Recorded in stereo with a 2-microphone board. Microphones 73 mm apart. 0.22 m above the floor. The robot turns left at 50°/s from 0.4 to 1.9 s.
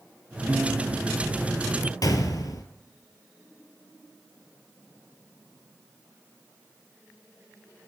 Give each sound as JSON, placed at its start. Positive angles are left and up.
{"t": 0.5, "sound": "a piano", "azimuth_deg": -25, "distance_m": 1.7}
{"t": 2.0, "sound": "a gunshot", "side_deg": 60, "distance_m": 1.1}